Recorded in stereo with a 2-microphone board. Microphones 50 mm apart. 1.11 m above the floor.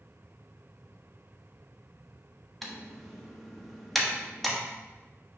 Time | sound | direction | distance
2.6 | typing on a keyboard | centre (ahead or behind) | 1.1 m